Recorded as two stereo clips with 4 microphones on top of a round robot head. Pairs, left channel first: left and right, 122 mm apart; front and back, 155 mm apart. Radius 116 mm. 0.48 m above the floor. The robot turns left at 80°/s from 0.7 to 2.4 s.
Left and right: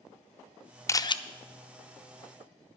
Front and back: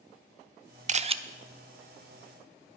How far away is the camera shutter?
About 0.6 m.